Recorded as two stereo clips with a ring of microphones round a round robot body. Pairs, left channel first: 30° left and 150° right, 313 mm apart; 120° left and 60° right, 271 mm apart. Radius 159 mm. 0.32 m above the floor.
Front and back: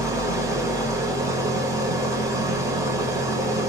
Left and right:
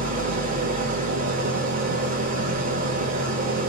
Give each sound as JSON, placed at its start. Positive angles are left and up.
{"t": 0.0, "sound": "an engine running", "azimuth_deg": -80, "distance_m": 0.9}